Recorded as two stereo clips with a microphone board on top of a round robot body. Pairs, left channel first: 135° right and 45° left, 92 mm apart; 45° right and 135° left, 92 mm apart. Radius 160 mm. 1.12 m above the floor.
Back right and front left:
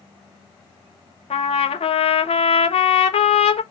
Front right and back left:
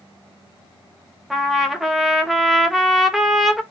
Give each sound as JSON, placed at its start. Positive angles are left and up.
{"t": 1.3, "sound": "a trumpet", "azimuth_deg": -140, "distance_m": 1.0}